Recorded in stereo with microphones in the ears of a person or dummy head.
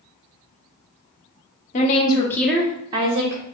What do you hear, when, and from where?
1.7 s a woman speaking: 40° left (ahead or behind), 0.7 m; by 3.4 s 45° right (ahead or behind), 0.8 m